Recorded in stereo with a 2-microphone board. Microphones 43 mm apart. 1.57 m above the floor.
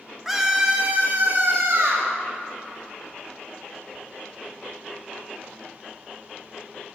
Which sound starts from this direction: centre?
A scream, at 0.2 s.